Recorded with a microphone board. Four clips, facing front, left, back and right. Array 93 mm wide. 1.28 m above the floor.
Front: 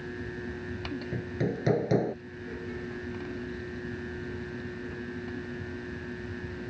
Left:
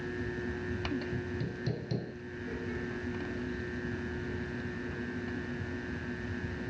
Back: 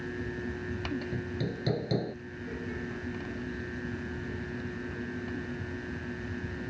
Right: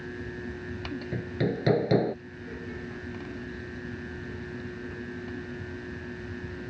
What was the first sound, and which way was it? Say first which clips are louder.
Hammering: right 7 dB, front 3 dB; 65° right.